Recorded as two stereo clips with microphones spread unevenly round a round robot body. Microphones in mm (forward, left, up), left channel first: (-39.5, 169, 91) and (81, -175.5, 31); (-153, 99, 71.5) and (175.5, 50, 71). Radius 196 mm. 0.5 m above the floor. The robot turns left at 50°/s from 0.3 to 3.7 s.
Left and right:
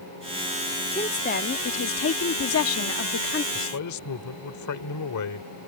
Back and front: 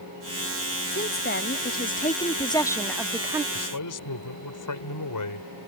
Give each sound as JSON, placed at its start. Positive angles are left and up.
{"t": 0.9, "sound": "a woman speaking", "azimuth_deg": -170}
{"t": 3.5, "sound": "a man speaking", "azimuth_deg": 160}